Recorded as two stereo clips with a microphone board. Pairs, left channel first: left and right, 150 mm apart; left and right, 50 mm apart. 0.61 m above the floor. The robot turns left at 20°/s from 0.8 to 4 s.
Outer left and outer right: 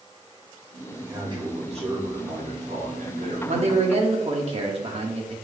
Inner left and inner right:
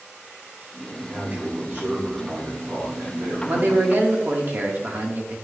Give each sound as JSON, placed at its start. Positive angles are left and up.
{"t": 0.9, "sound": "a man speaking", "azimuth_deg": -30, "distance_m": 3.5}
{"t": 3.5, "sound": "a man speaking", "side_deg": -45, "distance_m": 1.3}